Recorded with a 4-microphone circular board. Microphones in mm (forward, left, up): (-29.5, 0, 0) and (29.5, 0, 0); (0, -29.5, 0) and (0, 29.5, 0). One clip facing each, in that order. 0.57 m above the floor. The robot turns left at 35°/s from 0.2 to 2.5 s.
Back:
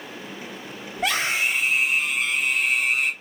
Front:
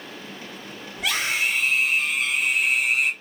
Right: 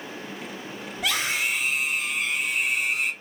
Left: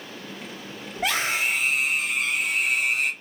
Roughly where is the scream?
Behind left.